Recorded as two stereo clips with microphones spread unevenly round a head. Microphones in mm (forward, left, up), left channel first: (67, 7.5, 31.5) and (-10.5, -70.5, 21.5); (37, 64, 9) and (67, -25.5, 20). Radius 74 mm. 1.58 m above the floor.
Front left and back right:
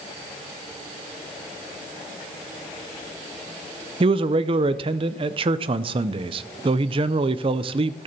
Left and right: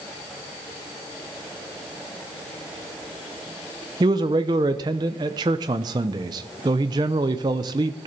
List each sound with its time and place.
4.0 s a man speaking: 105° right, 0.6 m